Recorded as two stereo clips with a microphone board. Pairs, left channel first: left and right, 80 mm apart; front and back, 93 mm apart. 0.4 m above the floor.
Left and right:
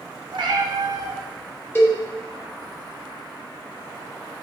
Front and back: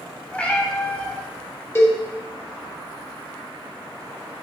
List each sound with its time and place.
0.3 s a cat meowing: 75° right, 1.0 m
1.8 s a cowbell: 45° left, 1.6 m